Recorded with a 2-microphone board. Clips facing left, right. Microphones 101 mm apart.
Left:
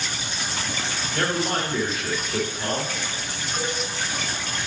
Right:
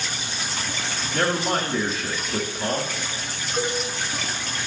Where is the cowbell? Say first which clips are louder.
Right 4 dB; 15° right (ahead or behind), 1.4 m.